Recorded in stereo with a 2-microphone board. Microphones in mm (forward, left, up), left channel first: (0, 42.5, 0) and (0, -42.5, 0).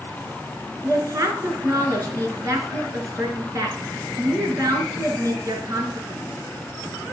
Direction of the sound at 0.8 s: 40° right (ahead or behind).